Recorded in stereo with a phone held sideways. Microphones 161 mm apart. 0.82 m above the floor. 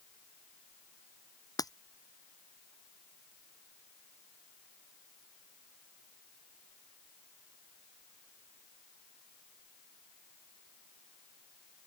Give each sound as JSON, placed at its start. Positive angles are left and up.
{"t": 1.6, "sound": "breaking glass", "side_deg": 25}